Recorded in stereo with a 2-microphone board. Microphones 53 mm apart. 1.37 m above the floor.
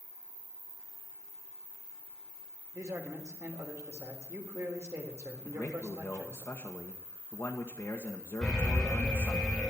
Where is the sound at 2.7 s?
60° right (ahead or behind), 3.5 m.